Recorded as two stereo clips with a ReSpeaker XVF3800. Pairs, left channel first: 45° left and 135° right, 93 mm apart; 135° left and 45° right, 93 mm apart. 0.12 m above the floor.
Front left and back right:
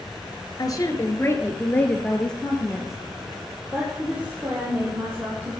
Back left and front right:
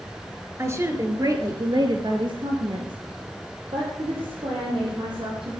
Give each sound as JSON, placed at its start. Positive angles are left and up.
{"t": 0.6, "sound": "a woman speaking", "azimuth_deg": 10, "distance_m": 2.5}